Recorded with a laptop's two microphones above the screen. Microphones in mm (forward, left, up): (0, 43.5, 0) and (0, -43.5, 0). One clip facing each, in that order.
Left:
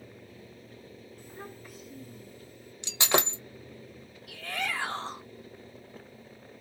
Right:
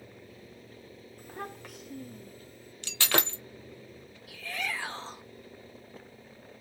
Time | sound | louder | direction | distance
1.2 | a child speaking | right 5 dB | 50° right (ahead or behind) | 0.8 m
2.8 | breaking glass | left 3 dB | 20° left (ahead or behind) | 1.2 m
4.3 | a shout | left 2 dB | 55° left (ahead or behind) | 1.0 m